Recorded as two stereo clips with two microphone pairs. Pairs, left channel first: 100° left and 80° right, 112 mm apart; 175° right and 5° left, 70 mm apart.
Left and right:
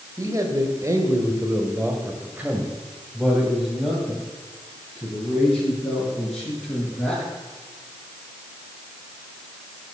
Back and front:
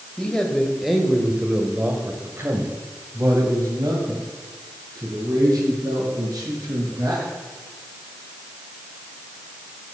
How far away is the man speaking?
About 1.8 m.